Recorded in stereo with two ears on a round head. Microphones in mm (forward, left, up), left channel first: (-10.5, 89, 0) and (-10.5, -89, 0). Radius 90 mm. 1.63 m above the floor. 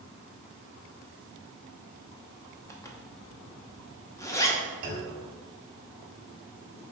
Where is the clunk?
45° right (ahead or behind), 1.6 m.